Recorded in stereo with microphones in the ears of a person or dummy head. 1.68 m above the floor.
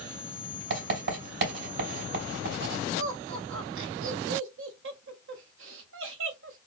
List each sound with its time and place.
0.7 s writing: 65° right (ahead or behind), 2.5 m
3.0 s laughter: 80° right, 1.2 m